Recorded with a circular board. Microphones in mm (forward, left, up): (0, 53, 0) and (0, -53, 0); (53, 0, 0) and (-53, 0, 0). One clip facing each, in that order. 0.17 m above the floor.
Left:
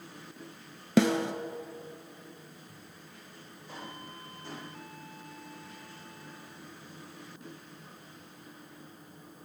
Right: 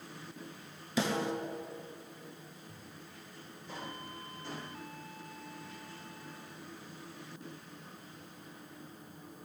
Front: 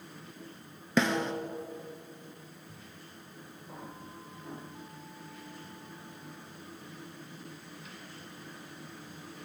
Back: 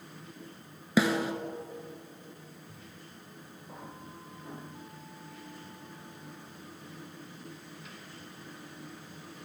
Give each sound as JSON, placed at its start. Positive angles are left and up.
{"t": 1.0, "sound": "a snare drum", "azimuth_deg": 100, "distance_m": 1.0}